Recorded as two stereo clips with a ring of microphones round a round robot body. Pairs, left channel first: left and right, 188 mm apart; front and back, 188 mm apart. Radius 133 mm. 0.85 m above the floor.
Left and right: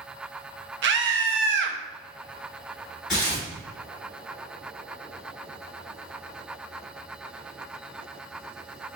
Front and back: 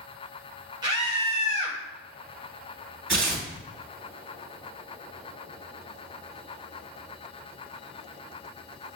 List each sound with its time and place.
0.8 s a scream: 110° right, 0.6 m
3.1 s tearing paper: 175° left, 2.5 m